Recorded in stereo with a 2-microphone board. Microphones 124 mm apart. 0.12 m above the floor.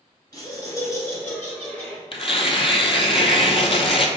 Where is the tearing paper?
50° left (ahead or behind), 0.5 m.